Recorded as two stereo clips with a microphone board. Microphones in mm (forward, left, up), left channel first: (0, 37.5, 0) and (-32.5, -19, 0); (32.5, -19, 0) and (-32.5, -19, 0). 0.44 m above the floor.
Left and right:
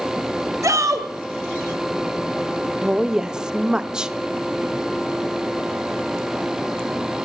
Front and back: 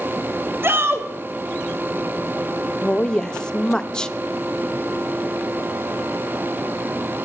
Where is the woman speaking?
55° right, 0.7 m.